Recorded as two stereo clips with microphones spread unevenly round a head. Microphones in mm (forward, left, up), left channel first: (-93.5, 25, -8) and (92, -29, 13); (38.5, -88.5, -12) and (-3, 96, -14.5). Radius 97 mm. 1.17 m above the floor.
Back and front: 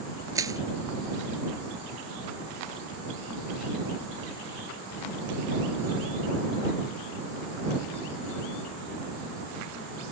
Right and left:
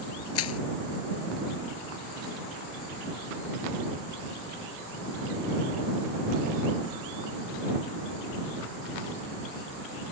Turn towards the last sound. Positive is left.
turn(degrees=-90)